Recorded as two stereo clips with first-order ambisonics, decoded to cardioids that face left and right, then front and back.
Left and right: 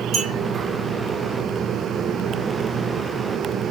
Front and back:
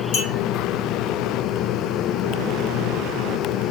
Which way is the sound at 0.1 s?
20° right.